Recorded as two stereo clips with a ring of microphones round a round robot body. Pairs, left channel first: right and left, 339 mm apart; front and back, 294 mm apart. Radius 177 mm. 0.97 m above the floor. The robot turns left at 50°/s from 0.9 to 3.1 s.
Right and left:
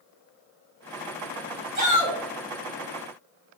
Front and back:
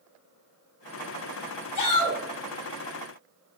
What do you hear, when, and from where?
1.8 s a shout: 25° left, 2.5 m; by 2.2 s 5° left, 2.5 m